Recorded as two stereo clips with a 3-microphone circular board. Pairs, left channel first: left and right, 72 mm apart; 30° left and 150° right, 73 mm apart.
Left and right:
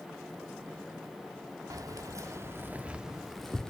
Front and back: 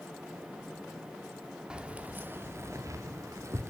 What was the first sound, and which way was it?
Keys jangling, 75° right.